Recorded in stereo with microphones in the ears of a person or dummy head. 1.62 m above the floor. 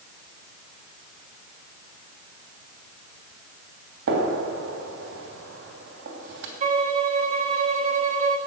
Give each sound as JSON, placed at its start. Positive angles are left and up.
{"t": 4.1, "sound": "a gunshot", "side_deg": -65, "distance_m": 2.5}
{"t": 6.6, "sound": "a violin", "side_deg": -40, "distance_m": 1.3}